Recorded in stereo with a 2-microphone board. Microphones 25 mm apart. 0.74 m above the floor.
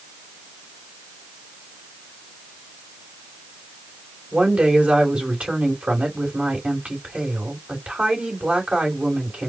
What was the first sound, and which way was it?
A woman speaking, 65° right (ahead or behind).